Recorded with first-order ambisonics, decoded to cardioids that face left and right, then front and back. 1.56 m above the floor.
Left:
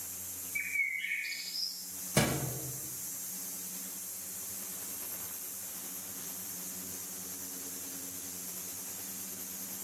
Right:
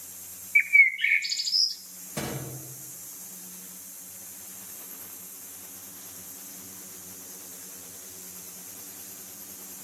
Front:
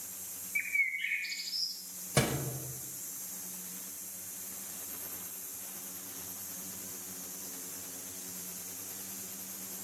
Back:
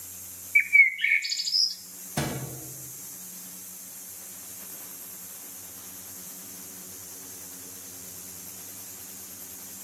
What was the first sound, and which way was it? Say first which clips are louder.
A bird: right 14 dB, back 12 dB; 120° right.